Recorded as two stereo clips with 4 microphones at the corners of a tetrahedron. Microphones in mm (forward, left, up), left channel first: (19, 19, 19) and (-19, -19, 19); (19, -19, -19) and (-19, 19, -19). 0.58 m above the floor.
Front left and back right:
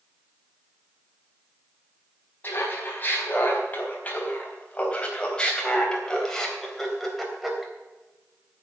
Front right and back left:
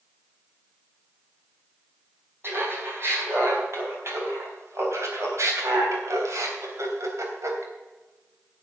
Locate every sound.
2.4 s laughter: 95° left, 4.5 m; by 7.7 s 140° left, 3 m